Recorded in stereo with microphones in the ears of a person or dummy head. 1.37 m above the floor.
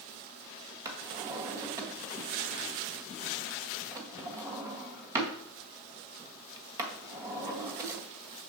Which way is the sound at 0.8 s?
15° right (ahead or behind).